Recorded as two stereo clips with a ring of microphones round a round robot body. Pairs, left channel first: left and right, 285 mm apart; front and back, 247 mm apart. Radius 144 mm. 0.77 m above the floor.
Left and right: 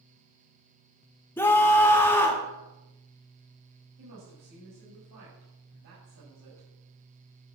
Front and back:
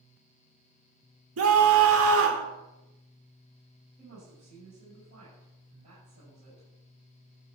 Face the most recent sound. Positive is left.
turn(degrees=-115)